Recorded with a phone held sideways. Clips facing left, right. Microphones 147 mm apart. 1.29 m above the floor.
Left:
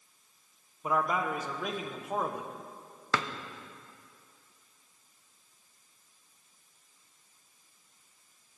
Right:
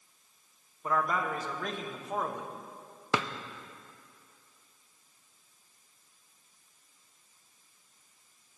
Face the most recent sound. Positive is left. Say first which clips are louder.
# right 1 dB
turn(degrees=-20)  # may be behind; listen again after turning